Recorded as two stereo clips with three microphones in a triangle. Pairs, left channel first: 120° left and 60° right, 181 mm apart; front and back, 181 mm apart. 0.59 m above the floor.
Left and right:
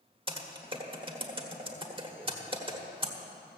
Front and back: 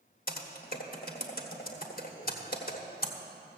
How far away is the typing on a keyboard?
About 1.3 m.